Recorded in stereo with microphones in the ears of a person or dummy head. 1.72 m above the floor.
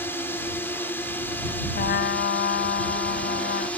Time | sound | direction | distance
0.0 | a drone | 10° left (ahead or behind) | ?
1.7 | a trumpet | 55° left (ahead or behind) | ?